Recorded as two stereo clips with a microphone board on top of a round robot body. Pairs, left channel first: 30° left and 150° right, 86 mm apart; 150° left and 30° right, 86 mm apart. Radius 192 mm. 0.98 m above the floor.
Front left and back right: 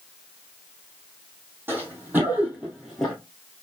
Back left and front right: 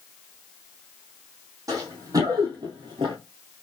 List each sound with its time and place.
1.7 s running footsteps: 80° right, 2 m; by 3.1 s 50° right, 1.0 m